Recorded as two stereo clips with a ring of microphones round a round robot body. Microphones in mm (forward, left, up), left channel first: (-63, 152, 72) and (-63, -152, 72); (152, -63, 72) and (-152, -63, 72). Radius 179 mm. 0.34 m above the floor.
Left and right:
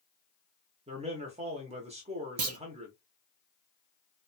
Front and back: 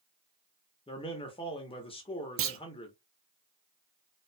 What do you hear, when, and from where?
0.9 s a man speaking: 50° right, 1.0 m
2.4 s a clunk: 130° right, 0.7 m